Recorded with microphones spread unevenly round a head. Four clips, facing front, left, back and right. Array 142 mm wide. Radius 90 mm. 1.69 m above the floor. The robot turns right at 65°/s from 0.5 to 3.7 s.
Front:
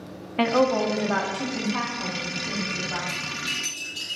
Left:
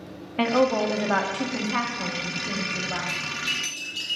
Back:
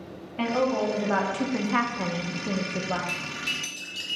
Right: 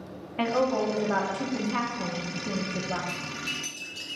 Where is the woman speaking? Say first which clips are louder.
Left 4 dB, front 4 dB; 55° left, 0.8 m; by 3.0 s 140° right, 0.8 m.